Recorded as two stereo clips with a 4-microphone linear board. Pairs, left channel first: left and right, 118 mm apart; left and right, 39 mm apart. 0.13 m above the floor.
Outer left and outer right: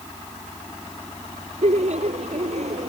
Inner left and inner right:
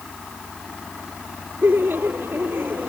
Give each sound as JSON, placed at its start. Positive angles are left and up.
{"t": 1.6, "sound": "laughter", "side_deg": -70}